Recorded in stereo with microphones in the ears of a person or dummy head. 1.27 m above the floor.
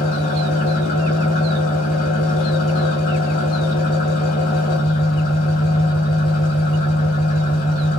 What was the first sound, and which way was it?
An engine running, 40° left (ahead or behind).